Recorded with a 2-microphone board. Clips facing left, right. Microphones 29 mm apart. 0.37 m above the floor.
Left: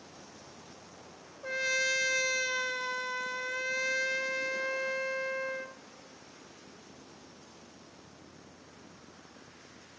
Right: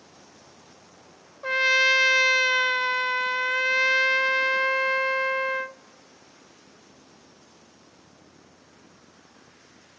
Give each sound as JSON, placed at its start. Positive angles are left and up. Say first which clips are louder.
{"t": 1.4, "sound": "a trumpet", "louder": "right 10 dB", "side_deg": -50, "distance_m": 0.5}